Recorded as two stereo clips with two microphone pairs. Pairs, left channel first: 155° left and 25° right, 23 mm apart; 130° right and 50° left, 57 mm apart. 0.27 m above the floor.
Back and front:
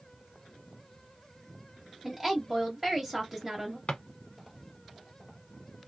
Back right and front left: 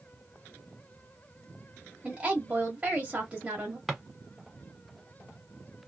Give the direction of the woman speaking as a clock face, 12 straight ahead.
11 o'clock.